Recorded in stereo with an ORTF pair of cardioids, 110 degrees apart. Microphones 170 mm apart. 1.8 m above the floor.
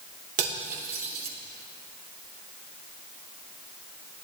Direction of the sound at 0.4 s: 70° right.